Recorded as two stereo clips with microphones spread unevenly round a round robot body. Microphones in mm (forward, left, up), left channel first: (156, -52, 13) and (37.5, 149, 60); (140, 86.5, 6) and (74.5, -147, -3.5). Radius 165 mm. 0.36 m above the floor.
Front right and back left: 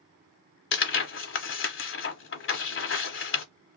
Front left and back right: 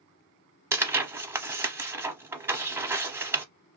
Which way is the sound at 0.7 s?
25° right.